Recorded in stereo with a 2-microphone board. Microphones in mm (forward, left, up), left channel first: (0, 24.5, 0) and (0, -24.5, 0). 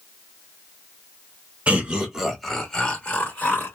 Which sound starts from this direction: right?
Laughter, at 1.7 s.